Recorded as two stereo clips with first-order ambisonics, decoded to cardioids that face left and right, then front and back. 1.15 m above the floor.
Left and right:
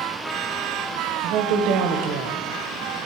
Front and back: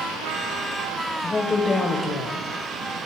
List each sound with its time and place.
1.2 s a woman speaking: 75° right, 0.9 m